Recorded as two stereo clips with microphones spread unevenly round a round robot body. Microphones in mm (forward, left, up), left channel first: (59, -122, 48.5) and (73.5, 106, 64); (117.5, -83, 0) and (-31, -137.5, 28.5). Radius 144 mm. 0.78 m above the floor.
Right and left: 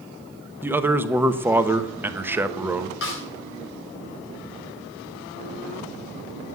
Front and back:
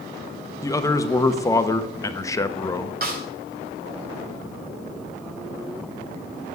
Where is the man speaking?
5° left, 1.1 m.